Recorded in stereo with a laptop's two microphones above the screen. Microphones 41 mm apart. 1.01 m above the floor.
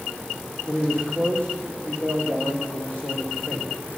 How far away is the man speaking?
About 2 m.